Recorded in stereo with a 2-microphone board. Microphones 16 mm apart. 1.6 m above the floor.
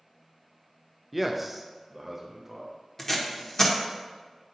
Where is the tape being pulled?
20° left (ahead or behind), 1.0 m.